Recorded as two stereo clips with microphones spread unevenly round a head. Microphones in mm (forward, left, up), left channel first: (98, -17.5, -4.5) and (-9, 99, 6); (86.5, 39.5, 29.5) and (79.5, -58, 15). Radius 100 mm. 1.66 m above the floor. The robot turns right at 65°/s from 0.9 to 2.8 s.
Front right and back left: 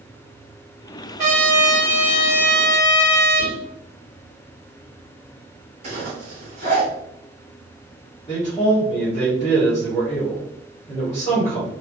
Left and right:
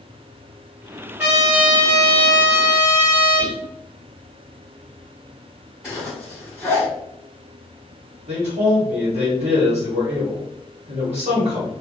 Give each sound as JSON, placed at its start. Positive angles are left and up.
{"t": 1.2, "sound": "a trumpet", "azimuth_deg": -175, "distance_m": 0.9}
{"t": 3.4, "sound": "whispering", "azimuth_deg": 170, "distance_m": 1.6}
{"t": 5.8, "sound": "a zipper", "azimuth_deg": 175, "distance_m": 1.8}
{"t": 8.3, "sound": "a man speaking", "azimuth_deg": -125, "distance_m": 1.1}